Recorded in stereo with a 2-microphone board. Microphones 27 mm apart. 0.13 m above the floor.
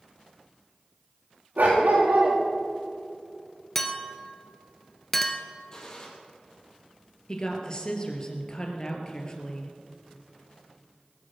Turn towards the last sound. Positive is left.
turn(degrees=30)  # may be behind; listen again after turning